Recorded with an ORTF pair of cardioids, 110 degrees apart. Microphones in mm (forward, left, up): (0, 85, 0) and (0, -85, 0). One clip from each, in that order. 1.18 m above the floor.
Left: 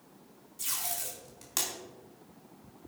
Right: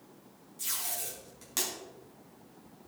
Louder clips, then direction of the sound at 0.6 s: Left 1 dB; 20° left.